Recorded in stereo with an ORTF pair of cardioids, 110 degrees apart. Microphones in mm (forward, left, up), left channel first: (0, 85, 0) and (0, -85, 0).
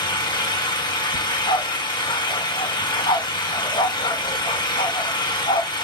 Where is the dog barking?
30° left, 2.0 m.